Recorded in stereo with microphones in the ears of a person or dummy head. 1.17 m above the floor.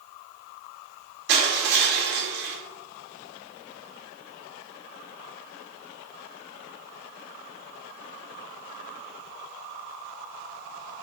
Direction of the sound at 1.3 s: 55° right (ahead or behind).